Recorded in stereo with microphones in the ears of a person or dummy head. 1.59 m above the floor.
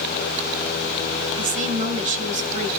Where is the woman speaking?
45° right (ahead or behind), 2 m.